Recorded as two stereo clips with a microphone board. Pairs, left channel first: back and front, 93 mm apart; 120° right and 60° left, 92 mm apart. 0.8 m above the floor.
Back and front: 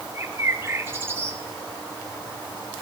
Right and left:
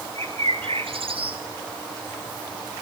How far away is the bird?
About 3 m.